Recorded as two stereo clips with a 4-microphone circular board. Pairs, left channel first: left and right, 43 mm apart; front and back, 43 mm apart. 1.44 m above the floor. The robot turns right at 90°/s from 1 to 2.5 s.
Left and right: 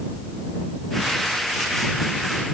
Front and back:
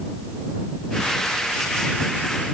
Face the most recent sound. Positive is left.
No sound to turn to.